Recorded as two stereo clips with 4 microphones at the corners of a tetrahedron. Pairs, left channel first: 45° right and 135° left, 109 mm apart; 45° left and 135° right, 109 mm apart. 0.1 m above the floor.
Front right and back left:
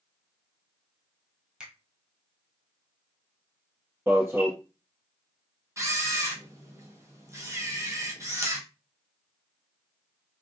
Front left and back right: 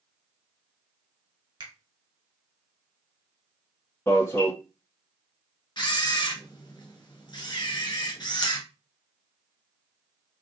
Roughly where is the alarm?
Left.